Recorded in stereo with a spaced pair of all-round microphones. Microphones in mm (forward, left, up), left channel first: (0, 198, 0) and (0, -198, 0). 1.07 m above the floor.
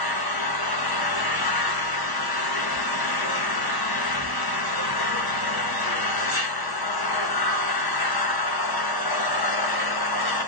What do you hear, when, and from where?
0.0 s an engine running: 65° left (ahead or behind), 0.8 m